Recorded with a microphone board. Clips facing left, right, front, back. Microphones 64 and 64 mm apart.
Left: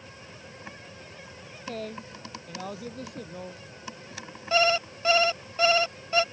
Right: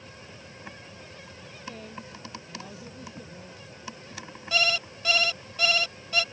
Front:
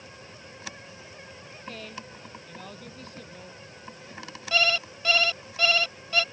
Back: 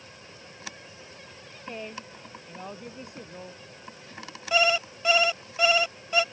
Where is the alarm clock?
120° left.